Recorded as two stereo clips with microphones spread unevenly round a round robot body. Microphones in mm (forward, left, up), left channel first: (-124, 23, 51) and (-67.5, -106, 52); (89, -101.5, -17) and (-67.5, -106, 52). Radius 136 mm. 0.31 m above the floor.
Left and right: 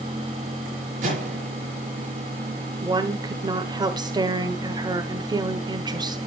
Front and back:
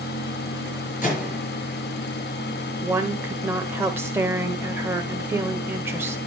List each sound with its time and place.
1.0 s a microwave: 20° right, 5 m
2.8 s a woman speaking: 70° right, 1.0 m